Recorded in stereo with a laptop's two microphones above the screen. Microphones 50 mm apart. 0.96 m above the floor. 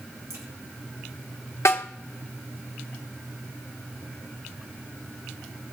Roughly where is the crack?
Right.